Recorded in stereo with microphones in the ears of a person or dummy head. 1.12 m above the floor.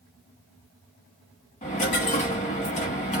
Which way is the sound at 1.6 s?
35° left (ahead or behind).